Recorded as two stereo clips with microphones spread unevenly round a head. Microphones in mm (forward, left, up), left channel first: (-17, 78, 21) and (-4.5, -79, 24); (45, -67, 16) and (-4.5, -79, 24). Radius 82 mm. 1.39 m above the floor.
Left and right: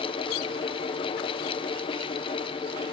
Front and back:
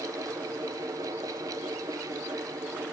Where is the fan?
155° left, 0.8 m.